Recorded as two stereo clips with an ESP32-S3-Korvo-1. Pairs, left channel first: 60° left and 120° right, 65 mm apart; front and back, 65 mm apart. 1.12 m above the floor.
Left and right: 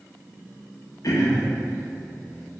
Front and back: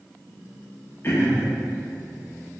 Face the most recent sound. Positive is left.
turn(degrees=50)